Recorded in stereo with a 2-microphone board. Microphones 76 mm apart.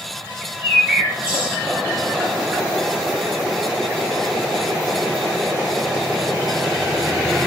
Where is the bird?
15° right (ahead or behind), 3 m.